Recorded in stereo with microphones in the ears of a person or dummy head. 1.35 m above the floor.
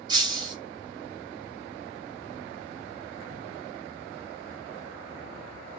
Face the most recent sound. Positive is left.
turn(degrees=-20)  # may be behind; listen again after turning